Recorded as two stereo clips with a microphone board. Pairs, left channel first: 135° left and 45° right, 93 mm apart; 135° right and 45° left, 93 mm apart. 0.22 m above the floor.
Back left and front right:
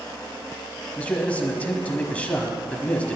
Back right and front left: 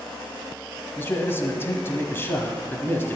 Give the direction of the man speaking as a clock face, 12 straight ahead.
6 o'clock.